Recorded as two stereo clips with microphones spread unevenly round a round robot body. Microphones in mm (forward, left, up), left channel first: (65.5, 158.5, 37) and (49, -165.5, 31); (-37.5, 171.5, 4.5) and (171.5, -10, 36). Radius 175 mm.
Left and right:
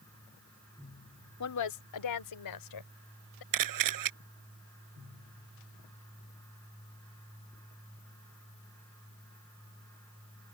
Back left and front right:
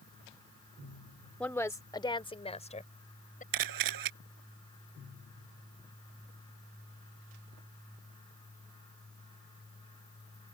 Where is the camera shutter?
70° right.